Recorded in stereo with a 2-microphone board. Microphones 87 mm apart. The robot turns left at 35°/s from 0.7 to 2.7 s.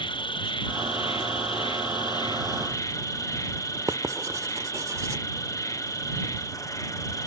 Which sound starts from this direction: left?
An insect, at 0.0 s.